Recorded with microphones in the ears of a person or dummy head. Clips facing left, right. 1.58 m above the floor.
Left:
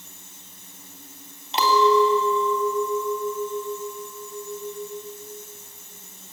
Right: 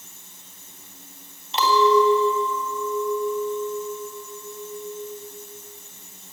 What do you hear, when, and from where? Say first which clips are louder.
1.5 s a clink: even; 45° left (ahead or behind), 3 m